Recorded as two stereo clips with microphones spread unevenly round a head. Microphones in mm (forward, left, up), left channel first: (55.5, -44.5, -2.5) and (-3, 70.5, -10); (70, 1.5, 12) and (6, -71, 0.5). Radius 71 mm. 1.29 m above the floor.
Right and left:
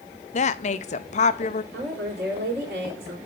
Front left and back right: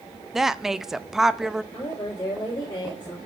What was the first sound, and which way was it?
A woman speaking, 50° right.